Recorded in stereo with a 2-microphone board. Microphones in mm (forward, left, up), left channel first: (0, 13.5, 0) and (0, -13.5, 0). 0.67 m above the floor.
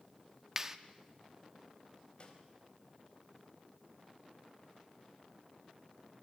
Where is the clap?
15° right (ahead or behind), 1.1 m.